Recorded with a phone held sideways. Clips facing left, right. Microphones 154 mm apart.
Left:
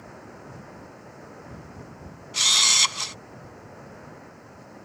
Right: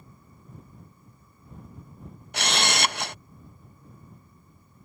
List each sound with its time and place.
0.0 s running water: 85° left
2.3 s a camera shutter: 60° right (ahead or behind)